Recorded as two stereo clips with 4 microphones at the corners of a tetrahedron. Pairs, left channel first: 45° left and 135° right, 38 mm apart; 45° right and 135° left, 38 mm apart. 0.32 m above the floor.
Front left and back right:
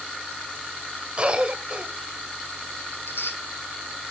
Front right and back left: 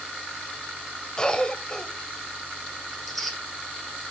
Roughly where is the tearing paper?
Ahead left.